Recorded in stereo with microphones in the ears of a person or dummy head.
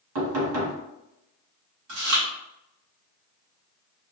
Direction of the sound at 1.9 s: 55° right (ahead or behind).